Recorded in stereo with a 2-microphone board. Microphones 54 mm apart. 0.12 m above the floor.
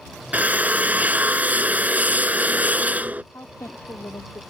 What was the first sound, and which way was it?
A drill, 30° right (ahead or behind).